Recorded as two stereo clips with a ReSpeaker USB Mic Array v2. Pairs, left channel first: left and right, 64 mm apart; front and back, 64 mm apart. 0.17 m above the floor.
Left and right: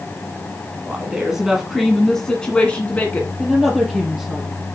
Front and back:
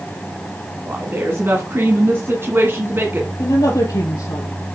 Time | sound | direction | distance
0.8 | a woman speaking | 155° right | 1.7 m
3.4 | a woman speaking | 5° right | 3.5 m